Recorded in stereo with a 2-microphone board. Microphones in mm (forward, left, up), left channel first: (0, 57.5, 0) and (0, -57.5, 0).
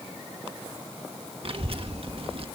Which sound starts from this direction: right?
A child speaking, at 1.4 s.